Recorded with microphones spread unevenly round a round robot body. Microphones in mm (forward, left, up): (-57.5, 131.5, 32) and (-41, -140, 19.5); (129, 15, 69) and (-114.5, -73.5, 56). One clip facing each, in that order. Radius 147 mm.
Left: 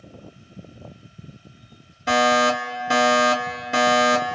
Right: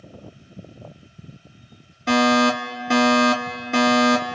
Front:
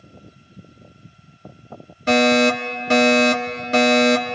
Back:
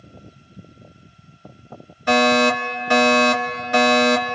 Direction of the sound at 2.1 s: 10° left.